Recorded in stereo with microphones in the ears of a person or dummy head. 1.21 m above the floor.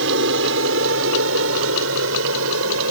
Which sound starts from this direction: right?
An aircraft, at 0.0 s.